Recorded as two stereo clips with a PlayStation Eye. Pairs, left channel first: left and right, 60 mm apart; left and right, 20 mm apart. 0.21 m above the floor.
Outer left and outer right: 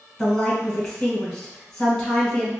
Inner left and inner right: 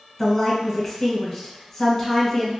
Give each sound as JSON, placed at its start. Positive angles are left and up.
{"t": 0.2, "sound": "a woman speaking", "side_deg": 10, "distance_m": 1.9}